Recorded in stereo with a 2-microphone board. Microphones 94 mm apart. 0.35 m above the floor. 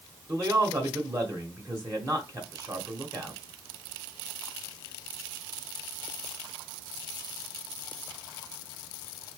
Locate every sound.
0.3 s a man speaking: 35° right (ahead or behind), 1.2 m